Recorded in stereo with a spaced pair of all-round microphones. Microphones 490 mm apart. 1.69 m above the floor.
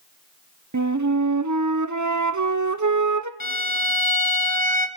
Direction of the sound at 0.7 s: 35° right (ahead or behind).